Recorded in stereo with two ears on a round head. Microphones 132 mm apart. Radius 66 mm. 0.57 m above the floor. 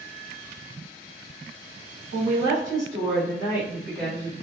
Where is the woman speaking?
50° right (ahead or behind), 1.4 m; by 4.3 s 20° left (ahead or behind), 0.9 m.